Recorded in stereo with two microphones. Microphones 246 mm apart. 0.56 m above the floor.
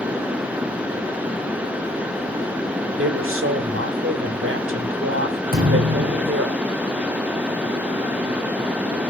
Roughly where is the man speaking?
Right.